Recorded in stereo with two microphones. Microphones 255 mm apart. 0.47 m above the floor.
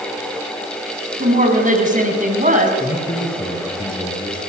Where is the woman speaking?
30° right (ahead or behind), 4.5 m.